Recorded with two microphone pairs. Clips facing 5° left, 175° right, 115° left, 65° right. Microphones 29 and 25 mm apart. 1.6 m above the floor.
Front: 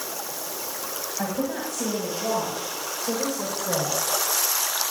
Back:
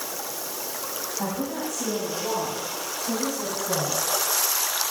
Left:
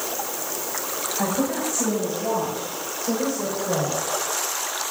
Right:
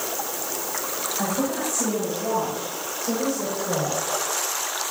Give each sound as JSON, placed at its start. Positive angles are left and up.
{"t": 1.2, "sound": "a woman speaking", "azimuth_deg": 45, "distance_m": 7.5}